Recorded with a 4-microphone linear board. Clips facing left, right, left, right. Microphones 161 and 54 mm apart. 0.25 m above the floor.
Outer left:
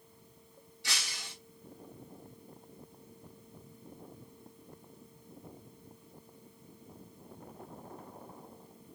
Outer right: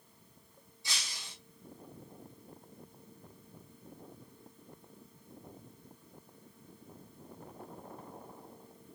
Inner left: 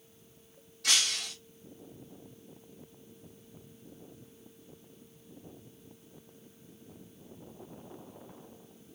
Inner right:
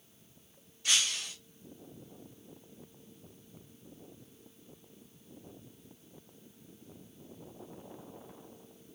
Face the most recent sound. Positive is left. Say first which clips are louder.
# outer left 3 dB, inner left 1 dB
turn(degrees=75)  # may be behind; listen again after turning